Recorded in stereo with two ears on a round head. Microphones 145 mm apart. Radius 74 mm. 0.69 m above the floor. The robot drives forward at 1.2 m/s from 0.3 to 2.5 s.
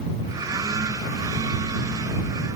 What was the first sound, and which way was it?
Only background noise.